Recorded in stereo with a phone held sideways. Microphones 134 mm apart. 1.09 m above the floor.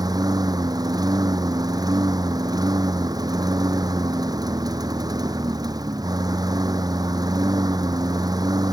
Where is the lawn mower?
30° right (ahead or behind).